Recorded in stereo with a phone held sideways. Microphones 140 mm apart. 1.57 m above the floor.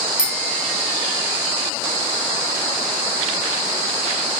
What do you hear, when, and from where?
0.2 s a bicycle bell: 80° left